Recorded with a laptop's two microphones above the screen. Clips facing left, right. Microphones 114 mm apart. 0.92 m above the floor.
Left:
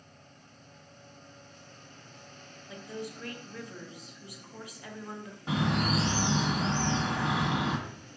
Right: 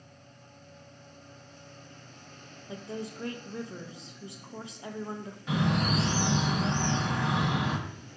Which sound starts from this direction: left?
A bird, at 5.5 s.